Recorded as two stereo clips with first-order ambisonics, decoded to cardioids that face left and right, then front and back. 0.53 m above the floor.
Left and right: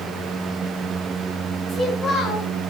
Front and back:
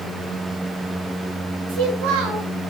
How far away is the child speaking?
About 4.5 m.